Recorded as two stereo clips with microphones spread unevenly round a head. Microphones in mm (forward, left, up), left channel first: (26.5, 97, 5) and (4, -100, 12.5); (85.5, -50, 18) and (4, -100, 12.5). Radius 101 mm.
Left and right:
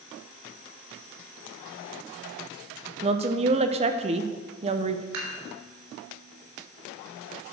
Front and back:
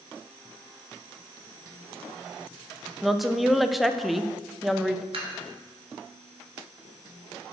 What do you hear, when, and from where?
3.0 s a woman speaking: 55° right, 0.7 m
5.1 s dishes clattering: 125° right, 3.5 m